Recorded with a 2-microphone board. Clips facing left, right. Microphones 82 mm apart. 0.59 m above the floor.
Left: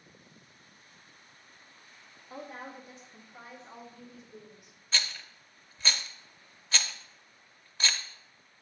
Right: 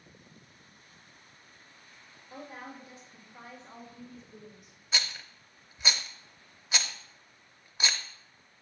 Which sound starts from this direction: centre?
A rattle, at 4.9 s.